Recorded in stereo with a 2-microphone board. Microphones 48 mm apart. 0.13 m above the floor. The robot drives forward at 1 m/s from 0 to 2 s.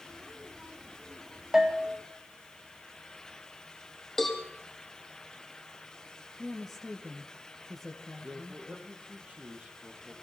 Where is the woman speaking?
Centre (ahead or behind), 2.5 m.